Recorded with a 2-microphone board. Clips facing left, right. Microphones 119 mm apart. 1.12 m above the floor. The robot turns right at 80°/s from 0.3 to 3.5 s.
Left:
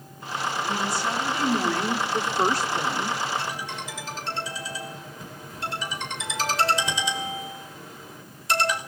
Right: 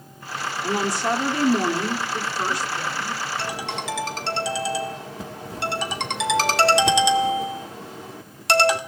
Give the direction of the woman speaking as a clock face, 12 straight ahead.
4 o'clock.